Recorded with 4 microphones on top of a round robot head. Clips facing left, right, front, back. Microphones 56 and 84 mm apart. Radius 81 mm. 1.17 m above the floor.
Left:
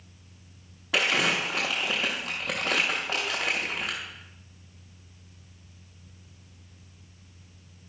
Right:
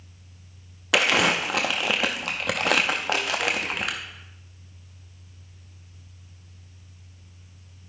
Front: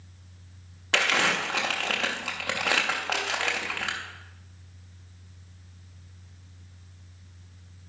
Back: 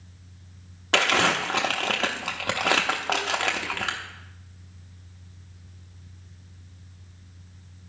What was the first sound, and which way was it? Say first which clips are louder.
Crumpling: right 4 dB, back 3 dB; 120° right.